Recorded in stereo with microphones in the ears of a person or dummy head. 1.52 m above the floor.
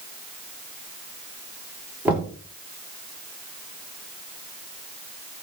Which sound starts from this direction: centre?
Knocking, at 2.0 s.